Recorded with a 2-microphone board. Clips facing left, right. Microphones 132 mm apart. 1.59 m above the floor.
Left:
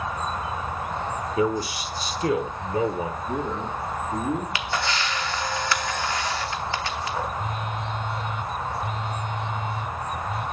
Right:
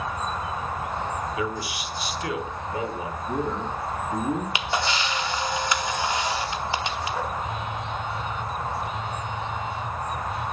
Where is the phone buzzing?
45° left (ahead or behind), 4.5 m.